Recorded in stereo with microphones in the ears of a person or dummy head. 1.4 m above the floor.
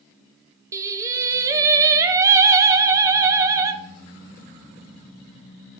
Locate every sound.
0.7 s singing: 20° right (ahead or behind), 0.7 m